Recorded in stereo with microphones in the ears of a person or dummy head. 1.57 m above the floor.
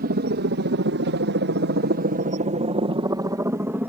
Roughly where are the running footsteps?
I don't hear running footsteps.